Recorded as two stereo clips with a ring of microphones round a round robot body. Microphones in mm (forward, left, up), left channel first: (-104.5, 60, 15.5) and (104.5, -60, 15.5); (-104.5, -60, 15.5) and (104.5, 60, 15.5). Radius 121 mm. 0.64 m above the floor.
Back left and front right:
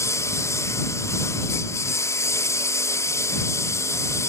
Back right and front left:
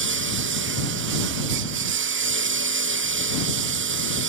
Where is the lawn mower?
70° left.